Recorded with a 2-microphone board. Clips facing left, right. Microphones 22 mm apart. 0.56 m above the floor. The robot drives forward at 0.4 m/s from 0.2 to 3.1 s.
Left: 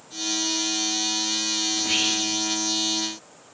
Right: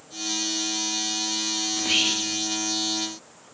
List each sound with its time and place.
1.7 s whispering: 15° right (ahead or behind), 1.0 m